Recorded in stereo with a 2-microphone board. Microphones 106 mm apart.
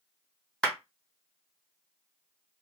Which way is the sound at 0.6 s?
5° left (ahead or behind).